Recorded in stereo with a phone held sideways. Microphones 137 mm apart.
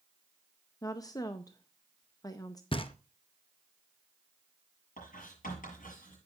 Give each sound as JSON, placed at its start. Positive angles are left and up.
{"t": 0.8, "sound": "a woman speaking", "side_deg": 25, "distance_m": 0.7}
{"t": 2.7, "sound": "knocking", "side_deg": 40, "distance_m": 0.7}
{"t": 5.0, "sound": "writing", "side_deg": 90, "distance_m": 7.5}